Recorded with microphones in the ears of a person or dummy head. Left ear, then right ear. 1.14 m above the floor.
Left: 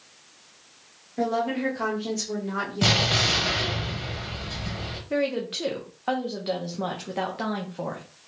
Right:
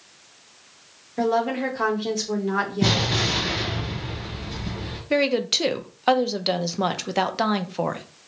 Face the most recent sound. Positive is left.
turn(degrees=-80)